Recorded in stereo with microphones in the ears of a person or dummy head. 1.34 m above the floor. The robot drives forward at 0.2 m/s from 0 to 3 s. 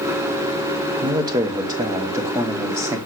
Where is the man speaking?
20° right (ahead or behind), 0.7 m; by 3.0 s 15° right (ahead or behind), 1.0 m.